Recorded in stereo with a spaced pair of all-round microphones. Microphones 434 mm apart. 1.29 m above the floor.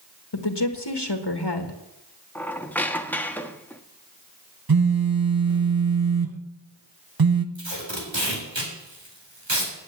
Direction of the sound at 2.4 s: 5° left (ahead or behind).